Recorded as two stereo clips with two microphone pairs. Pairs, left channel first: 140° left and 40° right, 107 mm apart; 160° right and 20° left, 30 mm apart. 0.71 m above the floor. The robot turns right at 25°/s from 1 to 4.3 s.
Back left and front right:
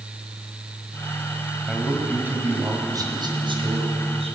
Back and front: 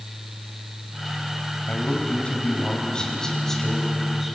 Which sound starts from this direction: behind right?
A man speaking, at 1.7 s.